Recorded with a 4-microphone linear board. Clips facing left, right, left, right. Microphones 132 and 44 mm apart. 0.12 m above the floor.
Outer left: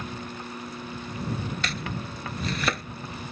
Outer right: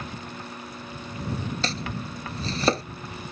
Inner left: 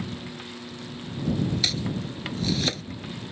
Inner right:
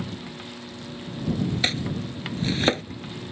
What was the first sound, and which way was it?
Chopping, 35° right (ahead or behind).